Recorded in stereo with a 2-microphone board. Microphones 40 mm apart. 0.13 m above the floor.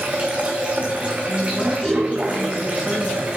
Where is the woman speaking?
15° left (ahead or behind), 1.3 m.